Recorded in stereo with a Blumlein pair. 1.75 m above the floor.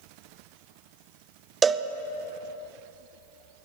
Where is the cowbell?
15° right, 0.5 m.